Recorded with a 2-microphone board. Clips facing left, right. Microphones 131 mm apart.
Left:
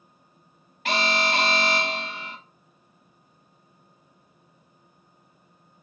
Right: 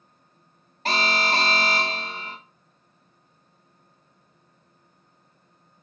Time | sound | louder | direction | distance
0.8 | an alarm | even | 35° right (ahead or behind) | 0.8 m